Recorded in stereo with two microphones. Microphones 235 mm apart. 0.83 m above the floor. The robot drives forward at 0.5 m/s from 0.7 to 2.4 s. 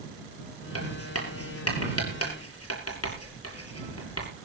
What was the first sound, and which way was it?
Writing, 80° left.